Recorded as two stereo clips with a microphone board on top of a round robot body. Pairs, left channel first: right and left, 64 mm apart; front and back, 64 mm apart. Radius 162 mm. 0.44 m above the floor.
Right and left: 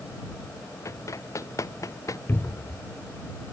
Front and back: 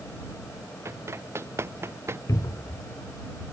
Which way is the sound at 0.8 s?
130° right.